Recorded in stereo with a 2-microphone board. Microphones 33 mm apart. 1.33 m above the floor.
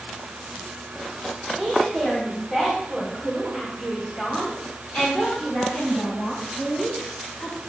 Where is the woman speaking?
5° left (ahead or behind), 5 m; by 7.6 s 75° left (ahead or behind), 6 m.